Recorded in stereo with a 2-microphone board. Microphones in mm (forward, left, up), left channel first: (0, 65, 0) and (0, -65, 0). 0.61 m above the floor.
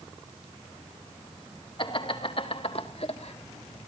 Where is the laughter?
45° left (ahead or behind), 3 m; by 3.9 s 60° left (ahead or behind), 2 m.